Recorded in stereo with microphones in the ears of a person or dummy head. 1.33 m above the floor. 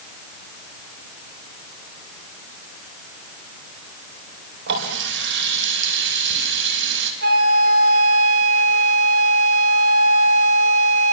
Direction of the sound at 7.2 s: 55° right (ahead or behind).